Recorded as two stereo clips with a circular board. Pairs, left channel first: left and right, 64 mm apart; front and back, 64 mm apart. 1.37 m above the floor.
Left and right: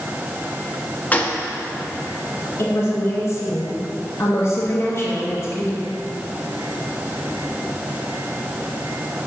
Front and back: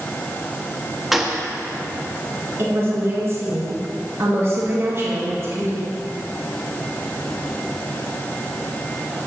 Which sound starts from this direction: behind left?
A woman speaking, at 2.6 s.